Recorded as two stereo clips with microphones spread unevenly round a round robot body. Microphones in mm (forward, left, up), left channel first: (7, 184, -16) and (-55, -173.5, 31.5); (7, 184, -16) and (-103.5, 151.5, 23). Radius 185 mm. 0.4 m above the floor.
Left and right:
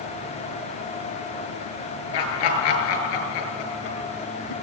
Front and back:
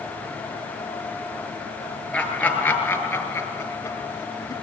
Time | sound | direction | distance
2.1 | laughter | 95° left | 8.5 m